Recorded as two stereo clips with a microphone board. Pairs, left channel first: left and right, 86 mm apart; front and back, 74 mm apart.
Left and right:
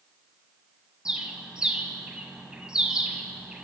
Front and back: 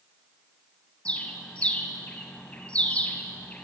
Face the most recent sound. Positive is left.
turn(degrees=-30)